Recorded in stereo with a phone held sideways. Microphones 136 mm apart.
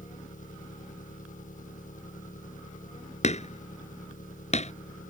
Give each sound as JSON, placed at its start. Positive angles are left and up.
{"t": 0.0, "sound": "an engine running", "side_deg": 75}
{"t": 3.2, "sound": "hammering", "side_deg": 55}